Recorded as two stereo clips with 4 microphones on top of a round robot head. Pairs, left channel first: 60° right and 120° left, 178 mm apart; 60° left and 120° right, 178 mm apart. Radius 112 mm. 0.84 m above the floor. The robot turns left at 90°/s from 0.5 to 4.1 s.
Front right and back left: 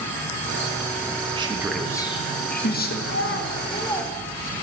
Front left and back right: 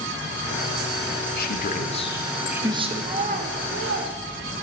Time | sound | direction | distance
1.4 | a man speaking | 65° left | 1.4 m
3.0 | a child speaking | 50° right | 1.2 m